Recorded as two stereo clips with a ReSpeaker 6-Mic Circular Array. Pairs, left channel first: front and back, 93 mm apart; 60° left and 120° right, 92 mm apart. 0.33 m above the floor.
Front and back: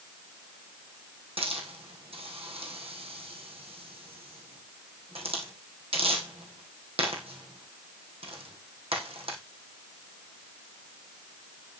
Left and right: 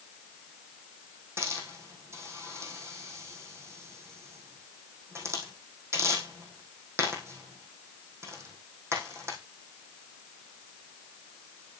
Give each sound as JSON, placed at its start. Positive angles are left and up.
{"t": 1.4, "sound": "a hiss", "azimuth_deg": 180, "distance_m": 2.5}